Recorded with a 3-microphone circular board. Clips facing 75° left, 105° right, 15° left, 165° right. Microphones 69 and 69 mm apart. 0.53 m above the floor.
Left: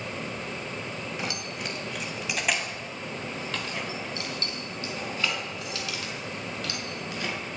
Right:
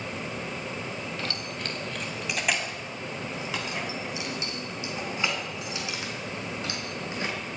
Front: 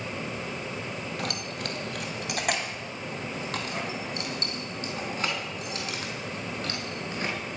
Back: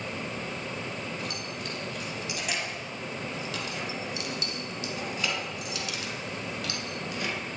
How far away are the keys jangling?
About 2 m.